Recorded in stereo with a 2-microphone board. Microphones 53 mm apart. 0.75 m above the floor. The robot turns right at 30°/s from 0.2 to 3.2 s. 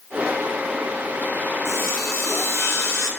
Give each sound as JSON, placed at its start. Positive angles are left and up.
{"t": 1.6, "sound": "sawing", "azimuth_deg": 75, "distance_m": 0.7}